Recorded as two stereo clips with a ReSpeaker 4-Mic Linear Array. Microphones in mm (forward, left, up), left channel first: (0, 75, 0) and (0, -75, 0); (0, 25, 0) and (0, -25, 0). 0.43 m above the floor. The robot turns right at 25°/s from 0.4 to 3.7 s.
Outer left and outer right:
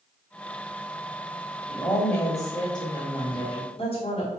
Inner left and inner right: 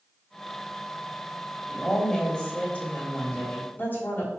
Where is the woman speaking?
25° left, 1.4 m; by 4.3 s 75° left, 1.4 m.